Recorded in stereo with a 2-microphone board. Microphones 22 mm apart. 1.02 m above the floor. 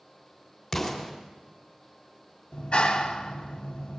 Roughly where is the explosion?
Centre.